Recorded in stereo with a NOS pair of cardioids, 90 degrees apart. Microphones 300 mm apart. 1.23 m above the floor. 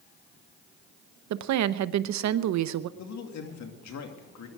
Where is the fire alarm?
No fire alarm in this recording.